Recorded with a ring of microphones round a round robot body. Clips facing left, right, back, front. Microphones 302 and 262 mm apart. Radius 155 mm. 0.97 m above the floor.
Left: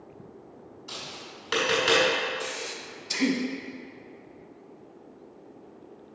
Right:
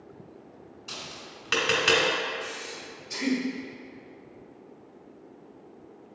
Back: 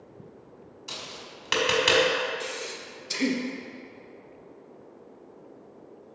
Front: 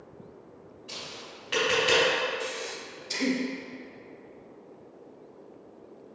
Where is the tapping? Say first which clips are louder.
Left 1 dB, even; 165° right, 1.8 m.